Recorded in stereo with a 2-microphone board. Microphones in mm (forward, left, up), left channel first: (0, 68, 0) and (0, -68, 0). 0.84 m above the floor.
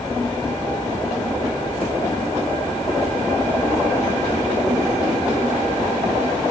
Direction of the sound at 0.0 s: 25° left (ahead or behind).